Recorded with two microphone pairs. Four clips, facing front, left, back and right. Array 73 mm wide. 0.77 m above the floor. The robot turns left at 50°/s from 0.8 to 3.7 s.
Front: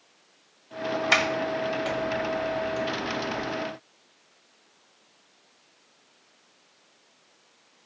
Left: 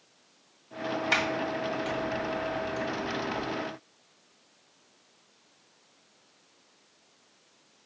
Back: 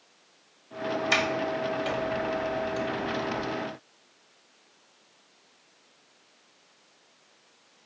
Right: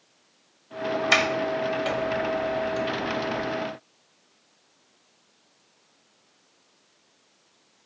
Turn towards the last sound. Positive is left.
turn(degrees=-165)